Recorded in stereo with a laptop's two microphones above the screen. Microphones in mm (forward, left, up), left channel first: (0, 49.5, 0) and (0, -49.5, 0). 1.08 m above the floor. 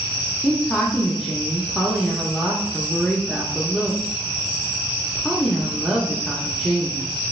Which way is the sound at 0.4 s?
Centre (ahead or behind).